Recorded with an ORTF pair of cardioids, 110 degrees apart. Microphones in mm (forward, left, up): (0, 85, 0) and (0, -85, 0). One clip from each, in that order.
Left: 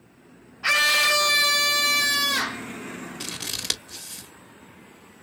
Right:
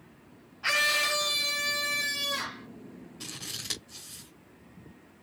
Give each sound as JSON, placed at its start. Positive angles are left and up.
{"t": 0.6, "sound": "a scream", "azimuth_deg": 25, "distance_m": 0.8}
{"t": 3.2, "sound": "scissors", "azimuth_deg": 70, "distance_m": 1.5}